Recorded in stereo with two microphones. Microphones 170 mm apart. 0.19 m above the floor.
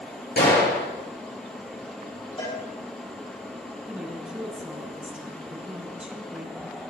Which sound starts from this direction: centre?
A woman speaking, at 3.9 s.